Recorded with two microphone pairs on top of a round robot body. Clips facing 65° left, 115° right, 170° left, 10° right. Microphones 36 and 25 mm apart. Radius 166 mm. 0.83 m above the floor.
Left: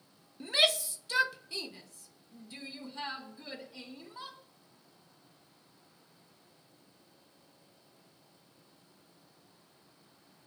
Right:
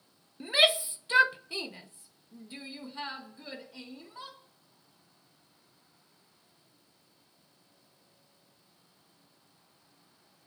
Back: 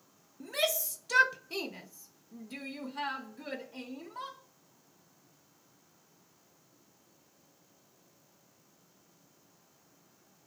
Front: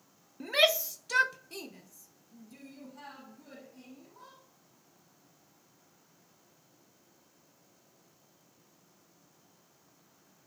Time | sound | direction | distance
0.4 | a shout | 45° right | 0.7 m